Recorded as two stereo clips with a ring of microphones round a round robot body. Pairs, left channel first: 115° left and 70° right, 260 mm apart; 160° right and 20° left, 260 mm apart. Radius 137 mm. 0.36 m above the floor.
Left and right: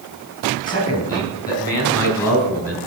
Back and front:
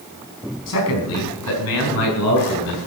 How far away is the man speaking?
About 4.5 m.